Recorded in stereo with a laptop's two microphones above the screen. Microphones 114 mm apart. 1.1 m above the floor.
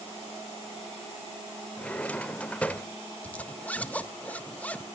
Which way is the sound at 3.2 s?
10° left (ahead or behind).